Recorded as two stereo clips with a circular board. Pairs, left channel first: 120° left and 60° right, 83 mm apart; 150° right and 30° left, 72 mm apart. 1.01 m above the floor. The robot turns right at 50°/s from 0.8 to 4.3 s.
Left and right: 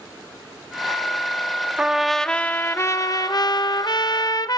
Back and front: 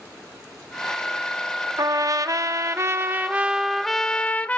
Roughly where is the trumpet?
Ahead.